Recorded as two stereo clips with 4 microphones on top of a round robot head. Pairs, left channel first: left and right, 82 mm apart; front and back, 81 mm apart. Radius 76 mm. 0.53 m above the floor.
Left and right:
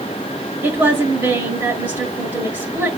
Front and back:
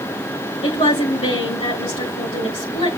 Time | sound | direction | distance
0.6 | a woman speaking | 20° right | 6.5 m